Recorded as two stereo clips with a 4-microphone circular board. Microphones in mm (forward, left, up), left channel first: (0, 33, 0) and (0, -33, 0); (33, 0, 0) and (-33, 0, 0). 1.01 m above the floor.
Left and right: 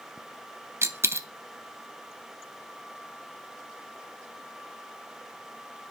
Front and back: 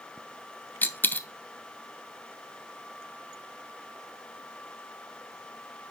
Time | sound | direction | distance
0.8 | a dropped coin | 55° right | 0.8 m